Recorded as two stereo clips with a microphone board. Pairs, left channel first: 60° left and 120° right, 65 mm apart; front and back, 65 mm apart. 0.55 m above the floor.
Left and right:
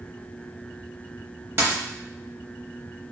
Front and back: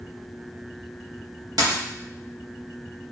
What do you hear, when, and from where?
1.6 s a dropped coin: 170° right, 0.9 m